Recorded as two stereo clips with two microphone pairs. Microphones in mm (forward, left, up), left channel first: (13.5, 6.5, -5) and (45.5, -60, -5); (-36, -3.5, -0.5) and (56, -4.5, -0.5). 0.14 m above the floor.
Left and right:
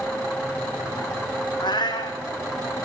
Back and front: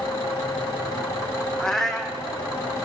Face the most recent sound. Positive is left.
turn(degrees=95)